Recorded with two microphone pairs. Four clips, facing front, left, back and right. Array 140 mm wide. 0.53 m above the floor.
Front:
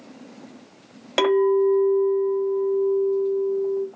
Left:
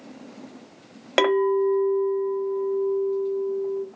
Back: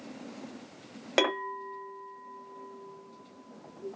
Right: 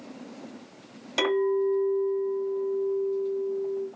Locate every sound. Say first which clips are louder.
1.2 s a clink: left 4 dB, front 13 dB; 85° left, 1.4 m